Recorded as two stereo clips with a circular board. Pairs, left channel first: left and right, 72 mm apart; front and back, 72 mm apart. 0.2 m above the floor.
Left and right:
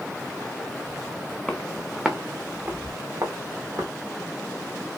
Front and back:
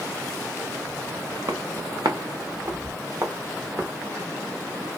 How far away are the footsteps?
About 0.9 m.